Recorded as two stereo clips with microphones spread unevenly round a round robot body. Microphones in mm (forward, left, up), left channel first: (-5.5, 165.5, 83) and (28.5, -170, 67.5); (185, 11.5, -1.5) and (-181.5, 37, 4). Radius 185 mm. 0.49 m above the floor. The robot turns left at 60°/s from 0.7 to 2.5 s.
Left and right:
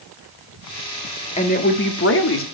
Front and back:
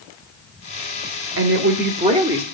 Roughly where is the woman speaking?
Behind left.